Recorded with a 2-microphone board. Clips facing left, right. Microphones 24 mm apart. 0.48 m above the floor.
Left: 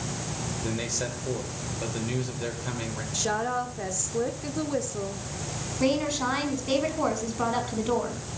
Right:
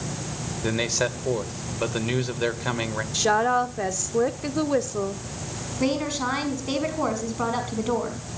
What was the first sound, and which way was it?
A man speaking, 35° right (ahead or behind).